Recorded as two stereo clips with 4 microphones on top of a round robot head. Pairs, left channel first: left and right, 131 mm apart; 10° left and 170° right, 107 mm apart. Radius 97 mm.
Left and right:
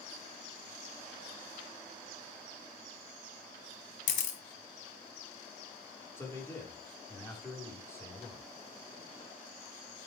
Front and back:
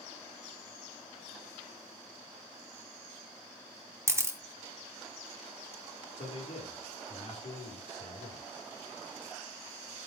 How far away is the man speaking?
About 7 m.